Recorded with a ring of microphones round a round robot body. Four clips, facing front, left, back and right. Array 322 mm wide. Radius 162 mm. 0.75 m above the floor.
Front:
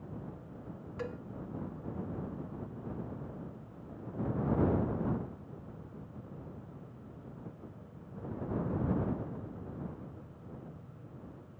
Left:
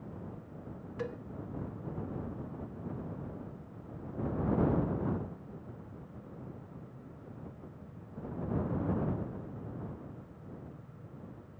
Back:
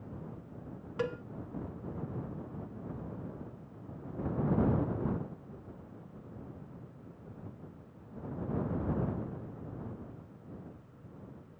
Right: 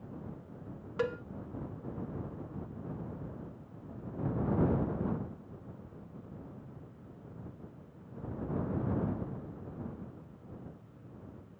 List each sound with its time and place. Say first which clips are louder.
1.0 s a cowbell: right 6 dB, back 6 dB; 125° right